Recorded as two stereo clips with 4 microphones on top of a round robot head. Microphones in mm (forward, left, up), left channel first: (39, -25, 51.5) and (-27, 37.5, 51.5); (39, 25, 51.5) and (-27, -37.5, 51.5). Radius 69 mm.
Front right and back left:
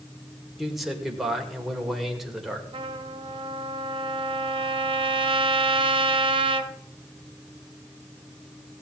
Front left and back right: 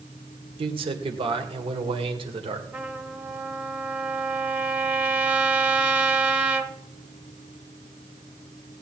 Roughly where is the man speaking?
Behind right.